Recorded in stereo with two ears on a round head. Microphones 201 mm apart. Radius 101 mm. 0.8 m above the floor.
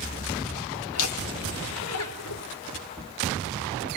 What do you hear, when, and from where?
0.9 s laughter: 65° left (ahead or behind), 2.5 m; by 2.4 s 75° left (ahead or behind), 3.5 m